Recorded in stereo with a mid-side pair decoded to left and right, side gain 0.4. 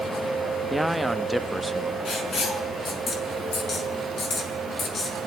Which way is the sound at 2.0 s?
55° left.